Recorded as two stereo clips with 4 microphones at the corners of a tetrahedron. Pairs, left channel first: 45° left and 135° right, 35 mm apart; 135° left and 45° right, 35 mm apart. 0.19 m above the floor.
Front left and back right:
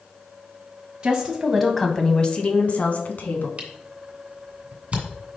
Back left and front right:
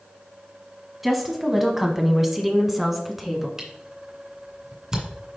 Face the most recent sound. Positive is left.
turn(degrees=-105)